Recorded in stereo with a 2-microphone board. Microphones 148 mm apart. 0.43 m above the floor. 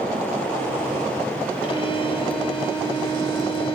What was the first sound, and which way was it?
A violin, 40° left (ahead or behind).